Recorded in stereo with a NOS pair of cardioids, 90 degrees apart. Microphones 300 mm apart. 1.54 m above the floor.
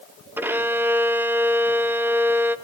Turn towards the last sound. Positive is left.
turn(degrees=-5)